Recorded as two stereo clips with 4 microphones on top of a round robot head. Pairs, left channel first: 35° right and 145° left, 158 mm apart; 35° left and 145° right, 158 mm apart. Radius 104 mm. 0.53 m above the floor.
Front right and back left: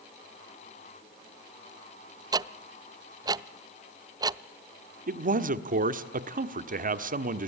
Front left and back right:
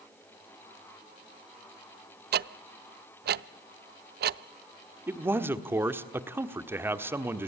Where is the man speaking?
145° left, 1.4 m.